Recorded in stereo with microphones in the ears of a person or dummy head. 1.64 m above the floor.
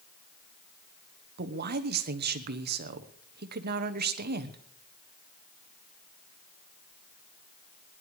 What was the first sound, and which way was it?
A man speaking, 50° right (ahead or behind).